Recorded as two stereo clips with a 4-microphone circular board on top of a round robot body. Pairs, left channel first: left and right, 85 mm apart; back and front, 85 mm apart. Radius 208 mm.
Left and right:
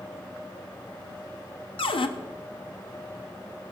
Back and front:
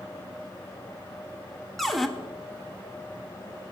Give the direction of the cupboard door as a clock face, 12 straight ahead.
9 o'clock.